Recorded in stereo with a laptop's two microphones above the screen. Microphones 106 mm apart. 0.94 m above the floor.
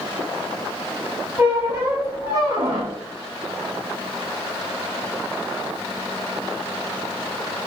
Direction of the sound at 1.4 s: 25° right (ahead or behind).